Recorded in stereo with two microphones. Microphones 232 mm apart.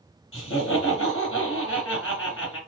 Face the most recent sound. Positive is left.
turn(degrees=60)  # may be behind; listen again after turning